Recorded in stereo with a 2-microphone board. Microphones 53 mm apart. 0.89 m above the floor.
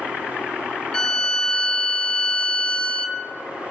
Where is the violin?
15° left (ahead or behind), 0.6 m.